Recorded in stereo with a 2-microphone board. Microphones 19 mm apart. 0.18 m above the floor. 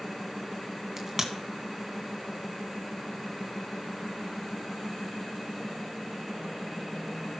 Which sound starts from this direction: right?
A crack, at 1.0 s.